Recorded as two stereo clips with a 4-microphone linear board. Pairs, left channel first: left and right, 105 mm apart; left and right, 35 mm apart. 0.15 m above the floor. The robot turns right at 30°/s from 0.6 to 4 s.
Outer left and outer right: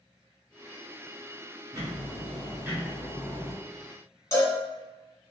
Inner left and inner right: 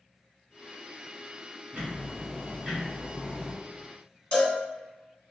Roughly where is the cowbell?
Left.